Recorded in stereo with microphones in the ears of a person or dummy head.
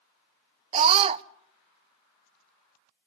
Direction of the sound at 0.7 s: 30° right (ahead or behind).